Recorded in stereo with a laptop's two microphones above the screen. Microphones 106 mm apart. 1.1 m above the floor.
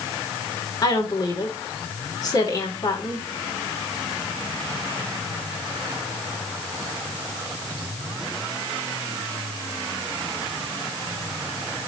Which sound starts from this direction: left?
A woman speaking, at 0.8 s.